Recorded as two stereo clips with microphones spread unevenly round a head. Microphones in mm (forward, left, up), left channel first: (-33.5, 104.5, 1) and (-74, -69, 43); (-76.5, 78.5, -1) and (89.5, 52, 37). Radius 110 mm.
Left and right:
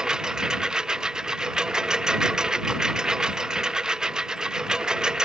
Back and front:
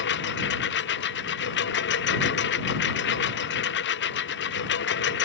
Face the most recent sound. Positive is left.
turn(degrees=170)